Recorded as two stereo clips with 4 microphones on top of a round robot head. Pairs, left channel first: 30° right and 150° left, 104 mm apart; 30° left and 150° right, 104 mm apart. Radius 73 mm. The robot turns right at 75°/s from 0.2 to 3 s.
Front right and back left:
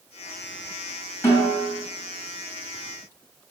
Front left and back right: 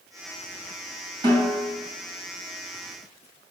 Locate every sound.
1.2 s a snare drum: 100° right, 2.5 m; by 1.7 s 70° right, 2.5 m